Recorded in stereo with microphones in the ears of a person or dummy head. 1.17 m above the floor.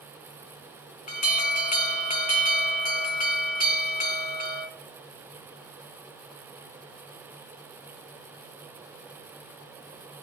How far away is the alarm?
About 1.0 m.